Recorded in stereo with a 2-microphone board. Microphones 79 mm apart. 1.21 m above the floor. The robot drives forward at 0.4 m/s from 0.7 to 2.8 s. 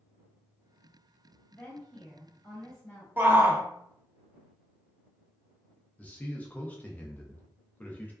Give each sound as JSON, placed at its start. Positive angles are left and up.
{"t": 1.5, "sound": "a woman speaking", "side_deg": 20, "distance_m": 0.9}
{"t": 3.2, "sound": "a shout", "side_deg": -25, "distance_m": 0.6}
{"t": 6.0, "sound": "a man speaking", "side_deg": 20, "distance_m": 0.6}